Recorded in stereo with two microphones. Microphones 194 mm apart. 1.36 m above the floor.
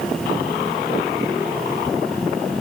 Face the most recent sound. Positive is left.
No sound to turn to.